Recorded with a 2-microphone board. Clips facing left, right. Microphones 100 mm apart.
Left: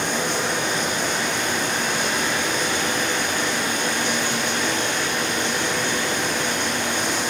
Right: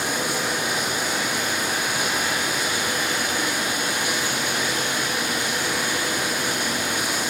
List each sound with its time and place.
0.0 s running water: 10° right (ahead or behind), 6 m